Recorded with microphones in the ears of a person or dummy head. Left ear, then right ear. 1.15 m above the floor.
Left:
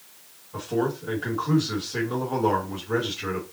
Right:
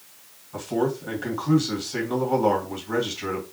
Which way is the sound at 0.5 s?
40° right (ahead or behind).